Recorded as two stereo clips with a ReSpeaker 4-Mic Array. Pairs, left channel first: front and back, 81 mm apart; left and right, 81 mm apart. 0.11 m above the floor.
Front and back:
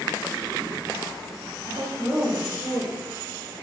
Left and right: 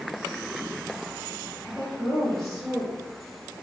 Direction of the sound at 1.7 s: 110° left.